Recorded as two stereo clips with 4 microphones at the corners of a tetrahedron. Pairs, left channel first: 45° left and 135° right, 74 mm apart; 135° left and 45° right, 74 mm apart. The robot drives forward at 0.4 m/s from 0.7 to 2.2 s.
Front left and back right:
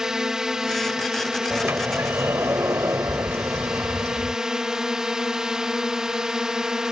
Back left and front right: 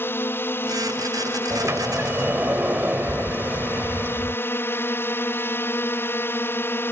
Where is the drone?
150° left.